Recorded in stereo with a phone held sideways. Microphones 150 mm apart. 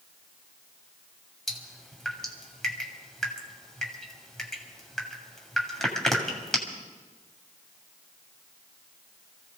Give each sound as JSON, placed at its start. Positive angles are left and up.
{"t": 1.5, "sound": "dripping", "side_deg": 5, "distance_m": 2.5}